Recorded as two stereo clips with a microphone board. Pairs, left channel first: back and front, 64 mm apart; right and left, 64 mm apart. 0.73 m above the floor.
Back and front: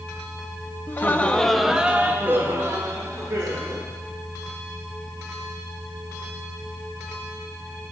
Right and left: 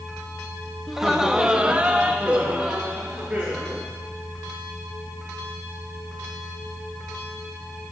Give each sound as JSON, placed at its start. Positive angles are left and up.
{"t": 0.9, "sound": "laughter", "azimuth_deg": 175, "distance_m": 0.6}